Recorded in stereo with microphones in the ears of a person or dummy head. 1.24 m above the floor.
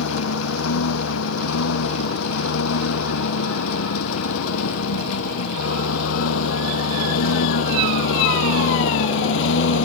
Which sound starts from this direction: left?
A lawn mower, at 0.0 s.